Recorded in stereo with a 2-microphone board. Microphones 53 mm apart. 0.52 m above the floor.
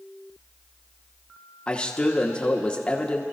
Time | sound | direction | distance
1.7 | a man speaking | 20° left (ahead or behind) | 0.9 m